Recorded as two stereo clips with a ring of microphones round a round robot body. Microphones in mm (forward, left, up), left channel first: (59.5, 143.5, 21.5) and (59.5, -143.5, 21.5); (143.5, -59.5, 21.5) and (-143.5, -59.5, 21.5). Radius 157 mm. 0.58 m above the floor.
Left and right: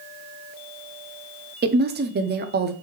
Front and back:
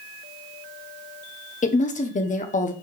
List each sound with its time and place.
1.6 s a woman speaking: 50° right, 0.7 m